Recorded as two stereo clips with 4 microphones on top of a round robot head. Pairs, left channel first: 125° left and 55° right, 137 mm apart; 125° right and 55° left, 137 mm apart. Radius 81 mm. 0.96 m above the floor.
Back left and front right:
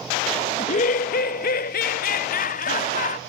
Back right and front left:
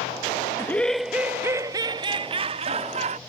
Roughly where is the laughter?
Behind.